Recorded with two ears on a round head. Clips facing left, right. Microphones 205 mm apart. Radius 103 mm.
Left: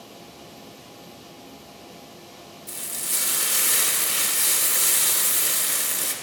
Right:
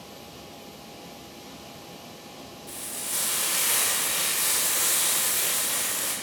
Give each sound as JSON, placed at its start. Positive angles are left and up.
{"t": 2.7, "sound": "frying", "side_deg": 30, "distance_m": 1.2}